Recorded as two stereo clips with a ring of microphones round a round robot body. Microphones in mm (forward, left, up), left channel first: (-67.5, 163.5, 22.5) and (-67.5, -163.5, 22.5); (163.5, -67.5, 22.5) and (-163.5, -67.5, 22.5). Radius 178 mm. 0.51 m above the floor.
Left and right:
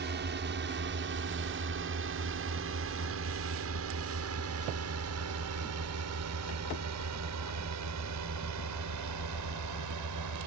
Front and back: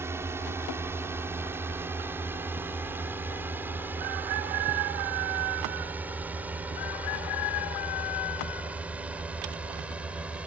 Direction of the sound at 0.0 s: 105° right.